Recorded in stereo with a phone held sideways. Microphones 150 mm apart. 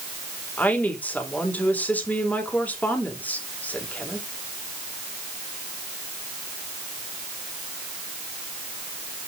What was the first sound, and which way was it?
A woman speaking, 10° left (ahead or behind).